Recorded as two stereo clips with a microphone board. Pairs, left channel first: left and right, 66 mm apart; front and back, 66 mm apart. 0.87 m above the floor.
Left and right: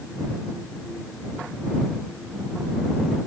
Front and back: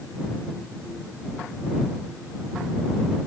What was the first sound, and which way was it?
Only background noise.